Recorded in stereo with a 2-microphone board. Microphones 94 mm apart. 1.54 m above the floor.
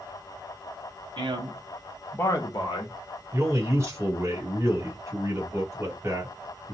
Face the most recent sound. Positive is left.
turn(degrees=-30)  # may be behind; listen again after turning